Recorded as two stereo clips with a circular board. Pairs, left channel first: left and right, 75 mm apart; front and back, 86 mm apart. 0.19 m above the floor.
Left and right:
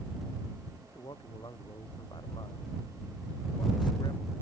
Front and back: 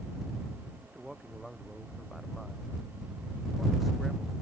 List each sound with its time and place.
0.8 s a man speaking: 90° left; by 4.3 s 95° left